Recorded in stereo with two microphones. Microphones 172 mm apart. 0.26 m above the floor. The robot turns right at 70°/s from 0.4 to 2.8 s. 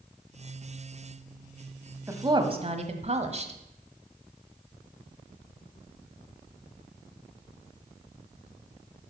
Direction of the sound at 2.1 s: 160° right.